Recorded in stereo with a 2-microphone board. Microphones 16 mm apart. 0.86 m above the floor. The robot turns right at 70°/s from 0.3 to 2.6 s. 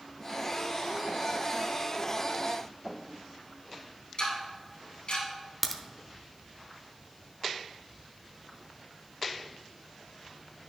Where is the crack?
Centre (ahead or behind), 0.7 m.